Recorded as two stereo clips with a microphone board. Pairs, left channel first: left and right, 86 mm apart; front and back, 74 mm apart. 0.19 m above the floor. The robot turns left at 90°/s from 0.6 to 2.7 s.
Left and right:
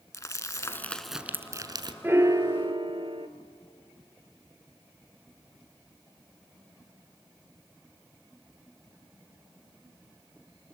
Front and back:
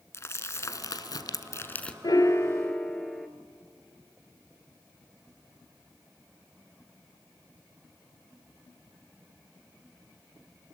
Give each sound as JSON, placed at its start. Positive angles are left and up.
{"t": 0.1, "sound": "crumpling", "azimuth_deg": 45, "distance_m": 0.9}
{"t": 2.0, "sound": "a piano", "azimuth_deg": -25, "distance_m": 1.1}